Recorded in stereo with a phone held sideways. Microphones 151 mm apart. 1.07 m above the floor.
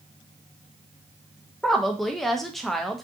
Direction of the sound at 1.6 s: Centre (ahead or behind).